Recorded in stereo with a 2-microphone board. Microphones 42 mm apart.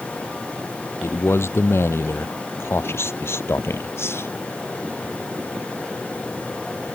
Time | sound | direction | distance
1.0 | a man speaking | 70° left (ahead or behind) | ?